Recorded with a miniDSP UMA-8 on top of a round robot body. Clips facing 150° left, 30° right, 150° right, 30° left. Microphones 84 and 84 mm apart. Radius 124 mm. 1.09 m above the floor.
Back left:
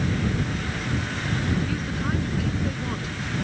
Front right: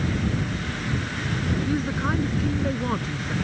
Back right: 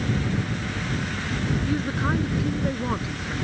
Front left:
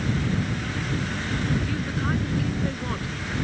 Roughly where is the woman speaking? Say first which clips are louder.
Front right 3 dB, back right 3 dB; right.